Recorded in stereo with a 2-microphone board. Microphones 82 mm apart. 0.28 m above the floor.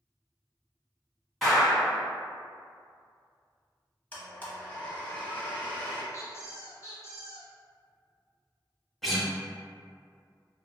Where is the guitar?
Centre (ahead or behind), 0.6 m.